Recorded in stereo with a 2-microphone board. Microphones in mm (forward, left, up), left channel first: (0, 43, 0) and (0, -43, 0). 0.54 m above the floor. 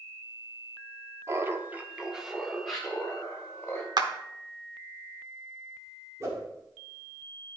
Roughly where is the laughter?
Right.